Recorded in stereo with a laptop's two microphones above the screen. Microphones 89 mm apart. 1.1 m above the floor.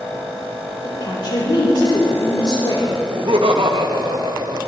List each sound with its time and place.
0.8 s a woman speaking: 55° left (ahead or behind), 3.5 m
3.1 s laughter: 75° right (ahead or behind), 1.4 m